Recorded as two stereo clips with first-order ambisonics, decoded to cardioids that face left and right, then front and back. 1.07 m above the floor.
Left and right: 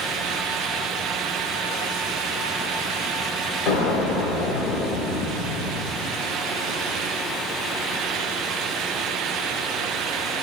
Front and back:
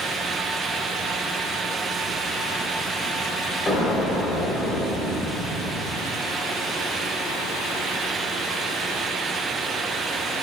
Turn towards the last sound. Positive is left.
turn(degrees=80)